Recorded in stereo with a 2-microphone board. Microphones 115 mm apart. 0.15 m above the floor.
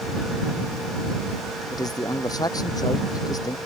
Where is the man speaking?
35° left (ahead or behind).